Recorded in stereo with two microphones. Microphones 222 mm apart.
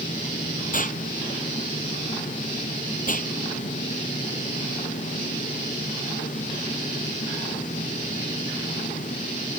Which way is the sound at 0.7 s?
35° left (ahead or behind).